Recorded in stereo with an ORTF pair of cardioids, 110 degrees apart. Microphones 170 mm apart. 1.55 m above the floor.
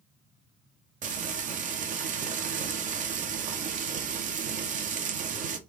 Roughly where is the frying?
Ahead right.